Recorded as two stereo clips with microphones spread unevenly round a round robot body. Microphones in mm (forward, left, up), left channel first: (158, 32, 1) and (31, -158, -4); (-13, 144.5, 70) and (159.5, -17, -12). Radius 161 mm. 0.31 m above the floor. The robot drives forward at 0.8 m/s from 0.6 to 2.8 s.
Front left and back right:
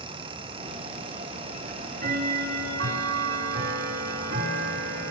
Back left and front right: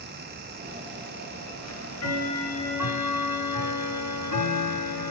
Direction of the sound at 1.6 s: Straight behind.